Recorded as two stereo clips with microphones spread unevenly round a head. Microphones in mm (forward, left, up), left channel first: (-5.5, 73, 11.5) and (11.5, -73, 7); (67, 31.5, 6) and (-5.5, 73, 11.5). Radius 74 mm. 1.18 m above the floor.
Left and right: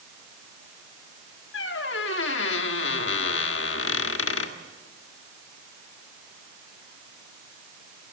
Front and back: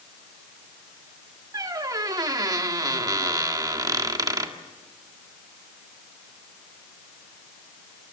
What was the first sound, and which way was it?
A squeak, 105° left.